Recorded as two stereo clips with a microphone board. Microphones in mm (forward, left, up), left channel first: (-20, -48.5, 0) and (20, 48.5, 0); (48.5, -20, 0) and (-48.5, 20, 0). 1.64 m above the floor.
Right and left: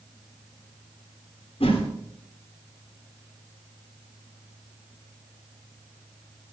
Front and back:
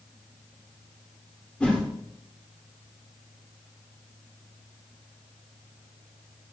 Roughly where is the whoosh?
Right.